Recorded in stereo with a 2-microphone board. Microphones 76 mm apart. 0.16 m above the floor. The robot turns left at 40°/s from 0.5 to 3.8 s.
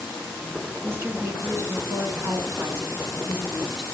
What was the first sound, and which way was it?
A woman speaking, 50° right.